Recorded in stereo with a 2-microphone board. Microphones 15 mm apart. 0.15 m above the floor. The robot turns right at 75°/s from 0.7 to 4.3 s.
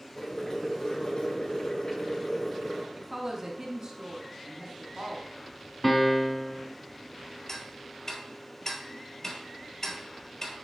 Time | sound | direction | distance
0.2 | boiling | 35° left | 2.5 m
3.0 | a woman speaking | 175° right | 1.3 m
5.8 | a piano | 10° left (ahead or behind) | 0.7 m
7.5 | ticking | 30° left (ahead or behind) | 1.2 m